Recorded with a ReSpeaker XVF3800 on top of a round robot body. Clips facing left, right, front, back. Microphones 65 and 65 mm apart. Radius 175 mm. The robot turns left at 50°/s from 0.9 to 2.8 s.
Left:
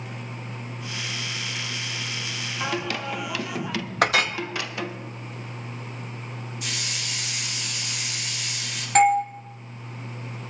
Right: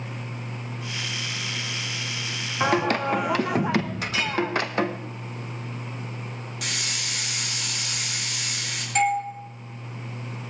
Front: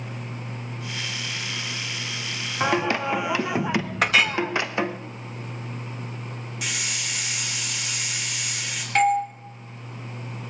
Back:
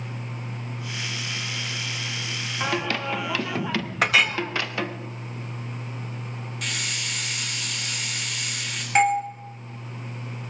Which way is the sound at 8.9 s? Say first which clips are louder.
Left 5 dB, even; 110° left.